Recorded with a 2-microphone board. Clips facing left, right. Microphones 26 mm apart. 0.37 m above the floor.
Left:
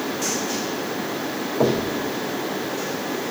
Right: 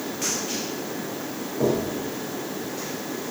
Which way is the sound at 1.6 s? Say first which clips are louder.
Left 2 dB; 65° left (ahead or behind).